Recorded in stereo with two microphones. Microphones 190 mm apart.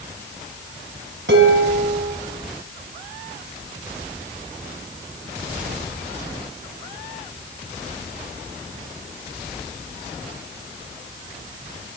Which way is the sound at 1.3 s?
70° right (ahead or behind).